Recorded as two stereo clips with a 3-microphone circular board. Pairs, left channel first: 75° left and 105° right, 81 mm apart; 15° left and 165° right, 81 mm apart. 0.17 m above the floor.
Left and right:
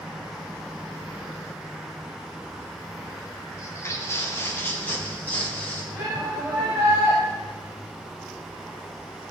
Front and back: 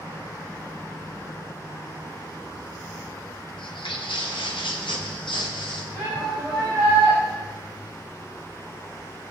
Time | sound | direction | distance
3.6 | footsteps | 20° left | 2 m
6.0 | a shout | 50° right | 5 m